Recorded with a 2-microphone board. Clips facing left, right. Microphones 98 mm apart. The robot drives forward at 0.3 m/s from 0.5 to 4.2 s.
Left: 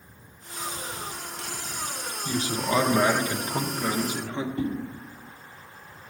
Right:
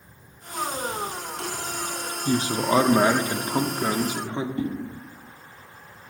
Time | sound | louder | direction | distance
2.2 | a man speaking | right 5 dB | 35° right (ahead or behind) | 0.7 m
4.6 | a whoosh | even | 25° right (ahead or behind) | 2.5 m